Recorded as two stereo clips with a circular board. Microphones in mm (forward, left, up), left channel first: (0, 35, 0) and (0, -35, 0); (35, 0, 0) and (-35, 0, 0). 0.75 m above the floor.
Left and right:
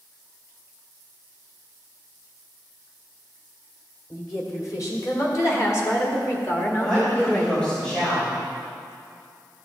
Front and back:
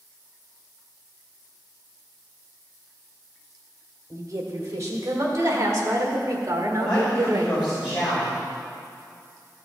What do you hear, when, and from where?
4.1 s a woman speaking: 130° left, 2.5 m; by 7.6 s 160° left, 0.9 m
6.8 s a man speaking: 25° left, 3.5 m